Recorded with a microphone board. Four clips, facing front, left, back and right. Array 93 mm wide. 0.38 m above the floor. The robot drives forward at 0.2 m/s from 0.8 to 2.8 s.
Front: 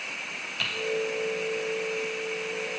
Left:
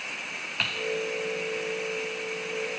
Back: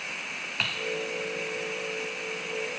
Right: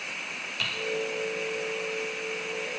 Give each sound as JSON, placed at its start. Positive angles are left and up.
{"t": 0.6, "sound": "typing on a keyboard", "azimuth_deg": 140, "distance_m": 0.8}